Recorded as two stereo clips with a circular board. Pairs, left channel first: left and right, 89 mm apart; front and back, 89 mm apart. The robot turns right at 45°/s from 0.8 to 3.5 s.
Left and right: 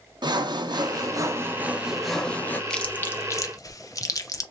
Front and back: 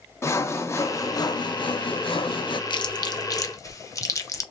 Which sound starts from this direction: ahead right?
Sawing, at 0.2 s.